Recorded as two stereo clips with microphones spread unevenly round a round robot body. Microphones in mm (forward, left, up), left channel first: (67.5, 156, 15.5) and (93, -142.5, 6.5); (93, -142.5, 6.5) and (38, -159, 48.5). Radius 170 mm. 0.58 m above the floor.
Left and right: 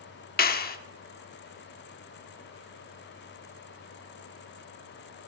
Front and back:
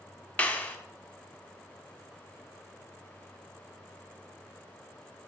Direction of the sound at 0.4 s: 40° left.